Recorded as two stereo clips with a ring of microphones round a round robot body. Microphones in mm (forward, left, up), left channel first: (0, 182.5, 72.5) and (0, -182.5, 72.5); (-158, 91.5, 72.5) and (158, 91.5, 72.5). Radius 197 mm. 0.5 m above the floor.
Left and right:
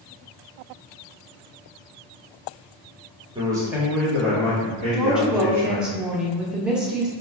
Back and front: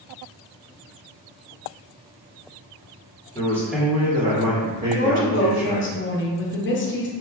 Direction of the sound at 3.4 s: 140° right.